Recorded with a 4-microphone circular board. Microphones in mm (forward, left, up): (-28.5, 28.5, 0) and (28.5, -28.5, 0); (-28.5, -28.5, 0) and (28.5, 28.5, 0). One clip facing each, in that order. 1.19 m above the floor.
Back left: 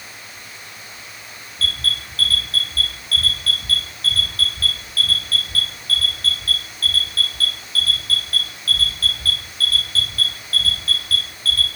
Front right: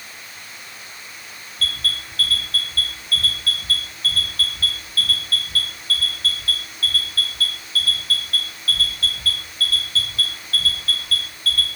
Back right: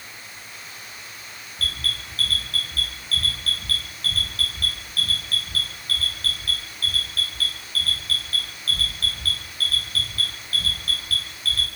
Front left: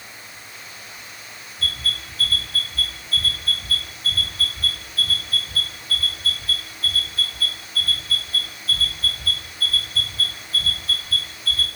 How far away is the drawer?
No drawer in this recording.